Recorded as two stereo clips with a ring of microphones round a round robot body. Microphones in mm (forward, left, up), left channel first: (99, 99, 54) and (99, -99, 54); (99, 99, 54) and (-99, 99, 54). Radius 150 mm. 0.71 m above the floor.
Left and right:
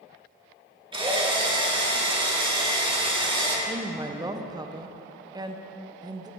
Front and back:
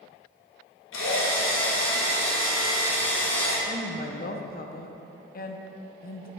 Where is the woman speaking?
25° right, 0.7 m.